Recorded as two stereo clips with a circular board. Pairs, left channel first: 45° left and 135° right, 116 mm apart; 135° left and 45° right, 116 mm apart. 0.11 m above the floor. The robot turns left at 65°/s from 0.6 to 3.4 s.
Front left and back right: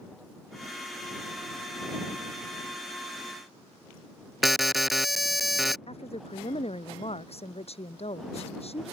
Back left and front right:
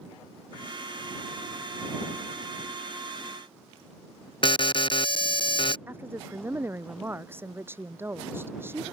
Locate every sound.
4.4 s an alarm: 135° left
5.9 s a woman speaking: 25° left